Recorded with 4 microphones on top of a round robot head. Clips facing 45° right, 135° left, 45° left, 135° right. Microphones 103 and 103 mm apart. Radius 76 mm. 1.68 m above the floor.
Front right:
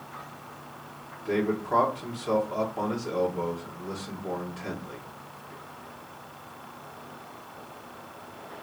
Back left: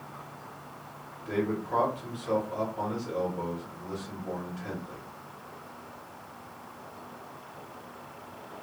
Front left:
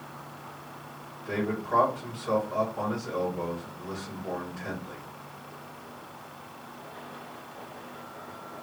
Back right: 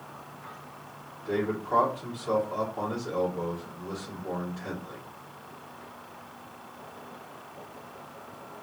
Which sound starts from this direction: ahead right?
A man speaking, at 1.2 s.